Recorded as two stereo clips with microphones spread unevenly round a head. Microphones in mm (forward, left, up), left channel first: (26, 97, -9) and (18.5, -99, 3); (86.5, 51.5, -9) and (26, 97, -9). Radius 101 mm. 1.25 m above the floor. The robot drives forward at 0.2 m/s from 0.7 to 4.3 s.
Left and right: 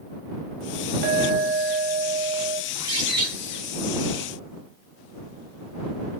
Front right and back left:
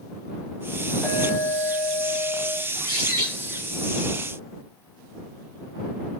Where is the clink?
110° right, 0.6 m; by 2.6 s 135° right, 0.7 m.